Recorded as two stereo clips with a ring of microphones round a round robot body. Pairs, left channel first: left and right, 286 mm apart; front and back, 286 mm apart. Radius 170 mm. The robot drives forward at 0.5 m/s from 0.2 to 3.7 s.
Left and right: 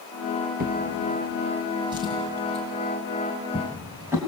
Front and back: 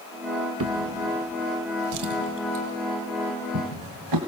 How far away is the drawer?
About 0.8 m.